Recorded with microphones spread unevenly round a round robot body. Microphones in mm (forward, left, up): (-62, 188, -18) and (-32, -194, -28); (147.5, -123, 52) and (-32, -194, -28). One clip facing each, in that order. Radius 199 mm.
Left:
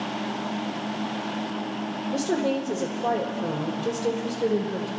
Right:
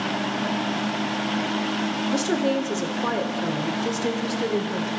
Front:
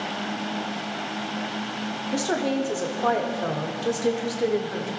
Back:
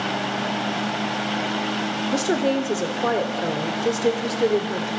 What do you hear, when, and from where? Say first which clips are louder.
2.1 s a woman speaking: right 1 dB, back 3 dB; 125° right, 1.4 m